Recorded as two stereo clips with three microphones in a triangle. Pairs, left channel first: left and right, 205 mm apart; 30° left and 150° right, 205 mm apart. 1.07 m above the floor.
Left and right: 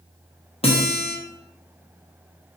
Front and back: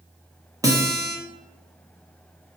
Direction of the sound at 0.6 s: 140° left.